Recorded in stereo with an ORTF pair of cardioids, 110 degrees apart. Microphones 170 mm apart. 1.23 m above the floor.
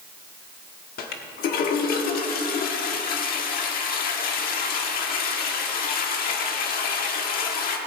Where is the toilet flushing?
65° left, 1.5 m.